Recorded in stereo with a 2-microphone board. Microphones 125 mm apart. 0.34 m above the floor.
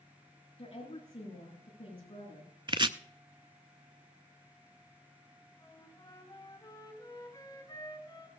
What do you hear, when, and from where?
0.6 s a woman speaking: 45° left (ahead or behind), 9 m
2.7 s chopping: 40° right (ahead or behind), 0.5 m
5.6 s a flute: 30° left (ahead or behind), 3 m